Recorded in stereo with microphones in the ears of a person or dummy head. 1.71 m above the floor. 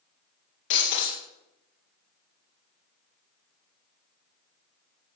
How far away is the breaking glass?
About 2.5 m.